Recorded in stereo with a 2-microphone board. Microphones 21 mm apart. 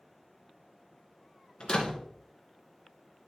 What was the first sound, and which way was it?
A door slam, 45° left (ahead or behind).